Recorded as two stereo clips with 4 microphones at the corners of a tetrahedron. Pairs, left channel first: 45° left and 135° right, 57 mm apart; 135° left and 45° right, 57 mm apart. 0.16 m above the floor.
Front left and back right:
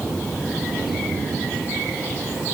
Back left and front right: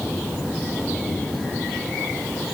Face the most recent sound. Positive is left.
No sound to turn to.